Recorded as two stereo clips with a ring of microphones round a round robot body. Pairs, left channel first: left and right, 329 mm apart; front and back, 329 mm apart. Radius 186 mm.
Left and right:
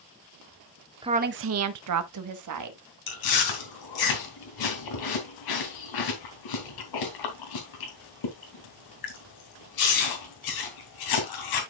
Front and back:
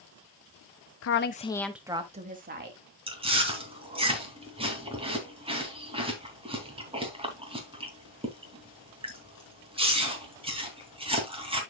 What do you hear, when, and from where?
1.0 s a woman speaking: 20° right, 0.9 m; by 2.8 s 120° right, 2.0 m
3.1 s chewing: 105° left, 3 m